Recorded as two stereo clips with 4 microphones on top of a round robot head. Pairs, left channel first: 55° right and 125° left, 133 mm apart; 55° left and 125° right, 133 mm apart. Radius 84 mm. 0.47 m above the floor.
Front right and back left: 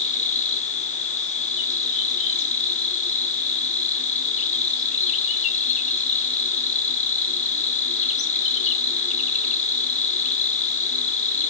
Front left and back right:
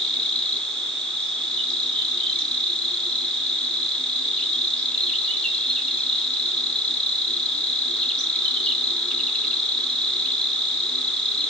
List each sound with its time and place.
0.0 s an insect: 25° right, 4.5 m